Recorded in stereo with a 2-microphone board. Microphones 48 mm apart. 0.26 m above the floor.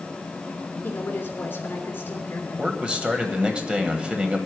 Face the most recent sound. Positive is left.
turn(degrees=-20)  # may be behind; listen again after turning